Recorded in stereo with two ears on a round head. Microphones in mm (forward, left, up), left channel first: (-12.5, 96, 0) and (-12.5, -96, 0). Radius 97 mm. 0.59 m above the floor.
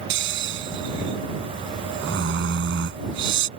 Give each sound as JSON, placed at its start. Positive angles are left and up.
{"t": 0.1, "sound": "snoring", "side_deg": -55}